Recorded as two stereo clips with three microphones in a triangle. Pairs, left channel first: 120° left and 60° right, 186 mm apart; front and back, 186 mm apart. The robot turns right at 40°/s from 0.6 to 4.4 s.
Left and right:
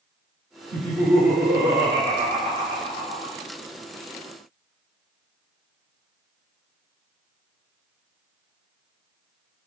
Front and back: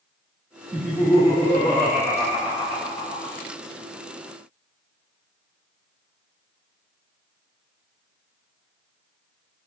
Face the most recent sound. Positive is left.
turn(degrees=45)